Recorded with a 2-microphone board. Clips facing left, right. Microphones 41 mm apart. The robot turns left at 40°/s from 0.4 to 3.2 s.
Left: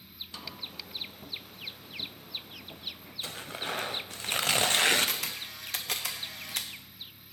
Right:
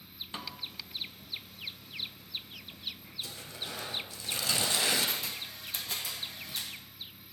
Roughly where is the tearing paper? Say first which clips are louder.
Left 9 dB; left.